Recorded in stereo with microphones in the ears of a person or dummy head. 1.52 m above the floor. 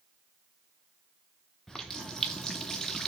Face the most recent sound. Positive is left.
turn(degrees=5)  # may be behind; listen again after turning